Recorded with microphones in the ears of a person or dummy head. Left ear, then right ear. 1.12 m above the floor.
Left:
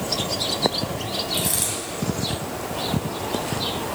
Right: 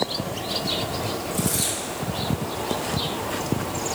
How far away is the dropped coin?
About 2.5 m.